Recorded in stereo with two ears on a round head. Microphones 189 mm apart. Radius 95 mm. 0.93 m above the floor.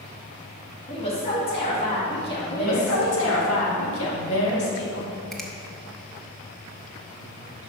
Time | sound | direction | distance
0.9 | a woman speaking | 30° left (ahead or behind) | 2 m
2.5 | a woman speaking | 65° left (ahead or behind) | 1.8 m
5.3 | a finger snap | centre (ahead or behind) | 0.6 m